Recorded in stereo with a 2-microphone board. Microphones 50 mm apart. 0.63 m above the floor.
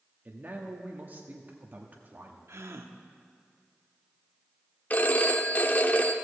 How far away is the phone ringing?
About 0.6 m.